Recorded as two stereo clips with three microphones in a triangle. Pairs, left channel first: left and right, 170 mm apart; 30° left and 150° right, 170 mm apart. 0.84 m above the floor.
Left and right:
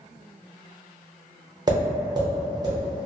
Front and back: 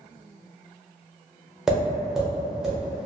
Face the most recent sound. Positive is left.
turn(degrees=-70)